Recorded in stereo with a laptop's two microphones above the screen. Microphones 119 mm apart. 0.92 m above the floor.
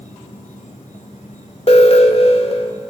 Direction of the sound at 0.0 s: 85° left.